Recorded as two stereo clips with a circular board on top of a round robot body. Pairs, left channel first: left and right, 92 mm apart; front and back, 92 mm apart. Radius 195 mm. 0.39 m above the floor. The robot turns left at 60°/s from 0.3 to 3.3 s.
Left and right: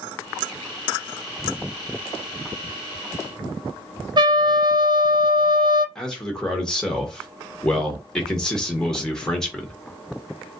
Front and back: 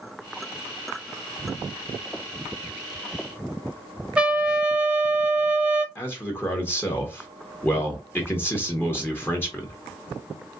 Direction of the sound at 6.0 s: 15° left.